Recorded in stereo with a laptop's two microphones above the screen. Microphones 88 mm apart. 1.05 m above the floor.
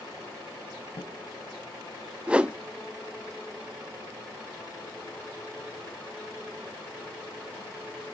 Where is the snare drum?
80° left, 3.5 m.